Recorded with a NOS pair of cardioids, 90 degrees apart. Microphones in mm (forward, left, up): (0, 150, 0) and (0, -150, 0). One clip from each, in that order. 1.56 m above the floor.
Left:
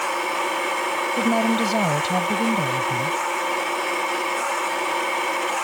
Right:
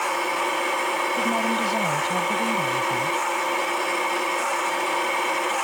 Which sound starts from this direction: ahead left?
A woman speaking, at 1.2 s.